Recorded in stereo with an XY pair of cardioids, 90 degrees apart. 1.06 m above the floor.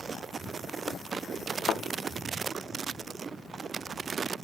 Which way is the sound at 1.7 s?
65° left.